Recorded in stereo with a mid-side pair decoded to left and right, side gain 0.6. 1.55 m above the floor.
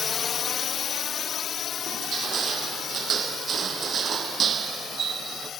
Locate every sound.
0.0 s a drone: 35° left; by 5.6 s 45° left
1.9 s crushing: 40° right